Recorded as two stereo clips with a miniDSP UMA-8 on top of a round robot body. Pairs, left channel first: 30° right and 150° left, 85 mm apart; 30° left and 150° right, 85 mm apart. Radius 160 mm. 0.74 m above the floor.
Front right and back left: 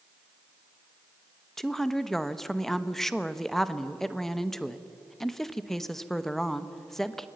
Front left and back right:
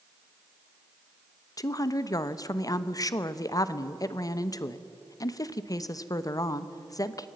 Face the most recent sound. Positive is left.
turn(degrees=55)